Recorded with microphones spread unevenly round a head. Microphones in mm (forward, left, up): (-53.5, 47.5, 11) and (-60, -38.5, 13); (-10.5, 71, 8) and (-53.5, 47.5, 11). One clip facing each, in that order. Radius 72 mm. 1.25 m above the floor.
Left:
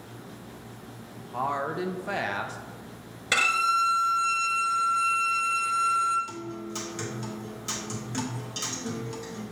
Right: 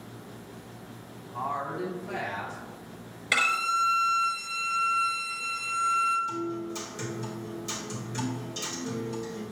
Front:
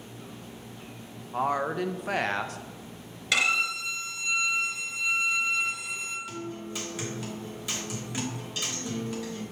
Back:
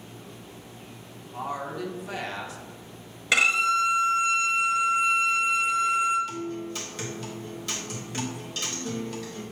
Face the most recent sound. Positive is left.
turn(degrees=110)